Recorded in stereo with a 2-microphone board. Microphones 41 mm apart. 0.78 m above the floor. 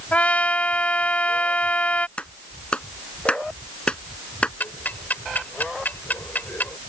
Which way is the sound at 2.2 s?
25° left (ahead or behind).